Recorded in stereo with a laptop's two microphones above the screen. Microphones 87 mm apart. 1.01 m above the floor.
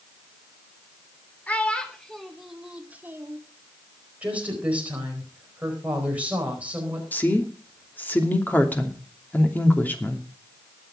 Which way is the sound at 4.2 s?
15° right (ahead or behind).